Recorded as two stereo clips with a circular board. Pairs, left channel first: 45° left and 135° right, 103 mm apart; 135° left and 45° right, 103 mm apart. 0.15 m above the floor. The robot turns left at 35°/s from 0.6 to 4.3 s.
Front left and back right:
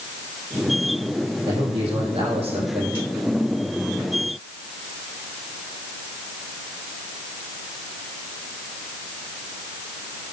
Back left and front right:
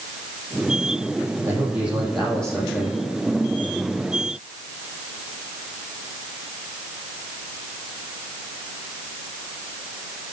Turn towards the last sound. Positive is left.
turn(degrees=150)